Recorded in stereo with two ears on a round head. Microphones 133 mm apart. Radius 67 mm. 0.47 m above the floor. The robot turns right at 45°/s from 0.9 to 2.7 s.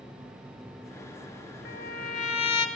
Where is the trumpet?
105° left, 0.9 m; by 2.7 s 150° left, 0.9 m.